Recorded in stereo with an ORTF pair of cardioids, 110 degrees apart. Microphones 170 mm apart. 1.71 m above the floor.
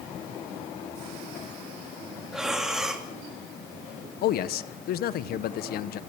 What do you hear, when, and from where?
2.3 s breathing: 5° right, 3 m
4.2 s a man speaking: 65° left, 1.2 m